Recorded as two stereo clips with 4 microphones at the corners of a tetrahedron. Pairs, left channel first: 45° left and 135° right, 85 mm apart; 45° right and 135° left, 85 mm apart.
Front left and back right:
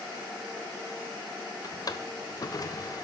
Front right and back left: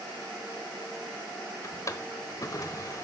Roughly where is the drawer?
Ahead.